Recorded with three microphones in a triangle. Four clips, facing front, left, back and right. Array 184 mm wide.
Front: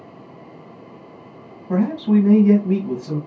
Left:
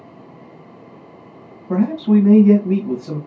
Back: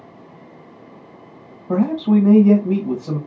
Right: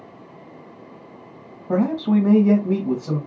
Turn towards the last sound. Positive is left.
turn(degrees=-135)